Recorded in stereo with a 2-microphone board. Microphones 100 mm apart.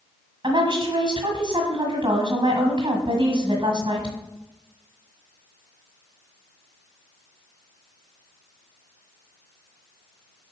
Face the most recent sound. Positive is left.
turn(degrees=-60)  # may be behind; listen again after turning